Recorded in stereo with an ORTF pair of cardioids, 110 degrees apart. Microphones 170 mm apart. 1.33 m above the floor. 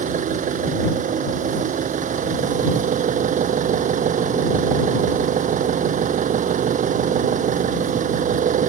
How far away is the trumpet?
I don't hear a trumpet.